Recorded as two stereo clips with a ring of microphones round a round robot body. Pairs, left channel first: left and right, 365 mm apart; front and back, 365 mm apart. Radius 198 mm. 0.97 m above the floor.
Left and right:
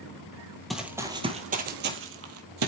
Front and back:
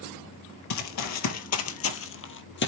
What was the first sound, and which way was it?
Running footsteps, straight ahead.